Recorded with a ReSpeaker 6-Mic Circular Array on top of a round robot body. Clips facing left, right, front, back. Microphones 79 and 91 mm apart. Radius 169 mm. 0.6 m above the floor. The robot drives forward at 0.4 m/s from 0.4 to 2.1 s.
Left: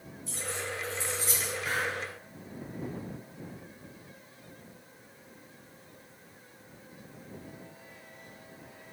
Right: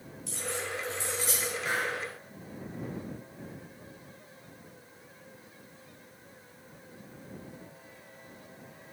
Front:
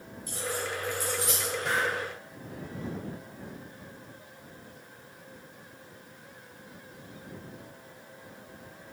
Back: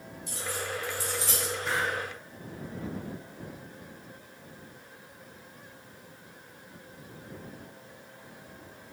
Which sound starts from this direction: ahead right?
A hiss, at 1.6 s.